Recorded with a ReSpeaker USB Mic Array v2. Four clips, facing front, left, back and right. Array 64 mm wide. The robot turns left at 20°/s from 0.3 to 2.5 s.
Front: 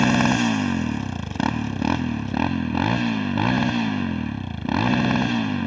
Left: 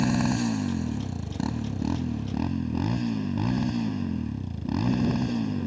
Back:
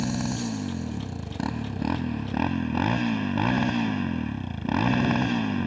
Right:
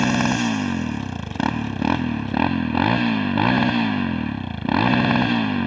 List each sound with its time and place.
0.0 s a motorcycle: 35° right; by 5.7 s 80° right